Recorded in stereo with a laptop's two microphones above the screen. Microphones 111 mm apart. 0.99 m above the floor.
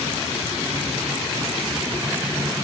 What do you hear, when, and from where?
Only background noise.